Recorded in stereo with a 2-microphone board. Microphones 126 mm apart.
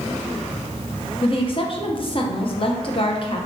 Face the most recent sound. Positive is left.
turn(degrees=45)  # may be behind; listen again after turning